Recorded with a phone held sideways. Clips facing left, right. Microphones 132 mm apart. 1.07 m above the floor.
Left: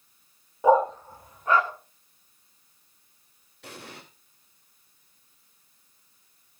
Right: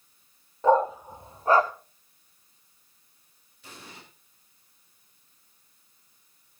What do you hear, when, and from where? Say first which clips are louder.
0.6 s a dog barking: left 1 dB; 10° left (ahead or behind), 0.7 m; by 1.7 s 40° right (ahead or behind), 1.1 m
3.6 s an explosion: left 4 dB; 70° left (ahead or behind), 3 m